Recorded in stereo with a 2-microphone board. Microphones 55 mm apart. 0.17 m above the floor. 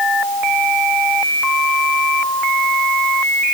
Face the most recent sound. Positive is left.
No sound to turn to.